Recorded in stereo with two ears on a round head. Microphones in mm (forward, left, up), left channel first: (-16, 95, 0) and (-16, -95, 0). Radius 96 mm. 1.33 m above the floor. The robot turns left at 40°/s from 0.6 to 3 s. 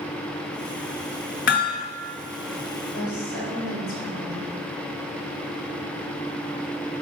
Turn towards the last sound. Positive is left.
turn(degrees=55)  # may be behind; listen again after turning